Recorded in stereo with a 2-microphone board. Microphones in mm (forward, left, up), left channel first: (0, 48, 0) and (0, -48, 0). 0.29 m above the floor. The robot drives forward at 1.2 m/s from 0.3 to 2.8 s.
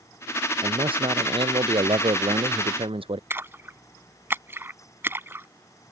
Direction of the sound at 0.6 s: 70° right (ahead or behind).